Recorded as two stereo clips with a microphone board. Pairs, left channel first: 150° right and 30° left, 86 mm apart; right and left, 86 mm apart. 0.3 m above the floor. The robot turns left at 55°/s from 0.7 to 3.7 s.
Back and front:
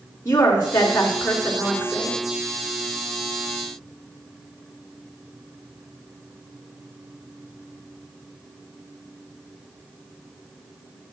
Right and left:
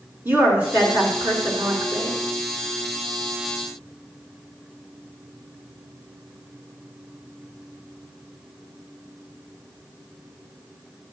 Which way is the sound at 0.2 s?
155° left.